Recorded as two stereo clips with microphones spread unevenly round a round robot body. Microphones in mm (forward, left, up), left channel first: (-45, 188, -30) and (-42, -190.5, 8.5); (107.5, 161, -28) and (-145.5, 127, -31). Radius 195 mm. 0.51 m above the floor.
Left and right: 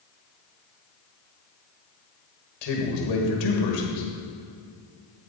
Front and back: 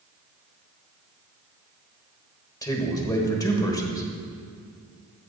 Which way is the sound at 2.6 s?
85° left.